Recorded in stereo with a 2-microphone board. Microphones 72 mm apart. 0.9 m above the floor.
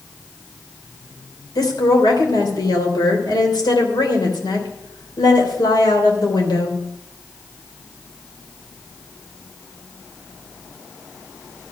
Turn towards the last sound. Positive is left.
turn(degrees=75)  # may be behind; listen again after turning